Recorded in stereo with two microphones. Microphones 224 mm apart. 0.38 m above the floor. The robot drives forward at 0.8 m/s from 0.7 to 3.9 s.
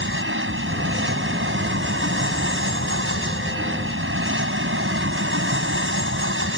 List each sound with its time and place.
0.0 s an aircraft: 60° right (ahead or behind)